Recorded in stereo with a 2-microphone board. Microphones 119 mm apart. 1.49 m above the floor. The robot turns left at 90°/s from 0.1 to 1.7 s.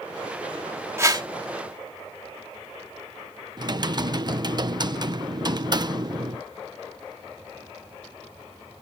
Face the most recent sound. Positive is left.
turn(degrees=-35)  # may be behind; listen again after turning